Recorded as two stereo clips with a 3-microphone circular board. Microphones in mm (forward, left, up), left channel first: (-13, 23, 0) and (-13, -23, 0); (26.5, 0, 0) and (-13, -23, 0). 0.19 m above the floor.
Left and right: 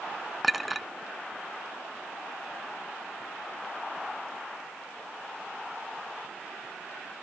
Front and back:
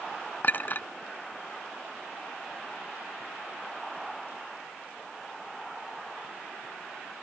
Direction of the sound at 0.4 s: Straight ahead.